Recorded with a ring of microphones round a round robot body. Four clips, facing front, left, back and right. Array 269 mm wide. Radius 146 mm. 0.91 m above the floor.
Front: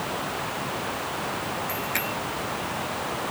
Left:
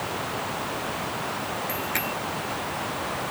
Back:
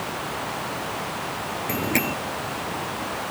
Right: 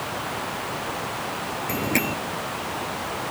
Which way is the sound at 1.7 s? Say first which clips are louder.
Right 4 dB, back 4 dB; 135° right.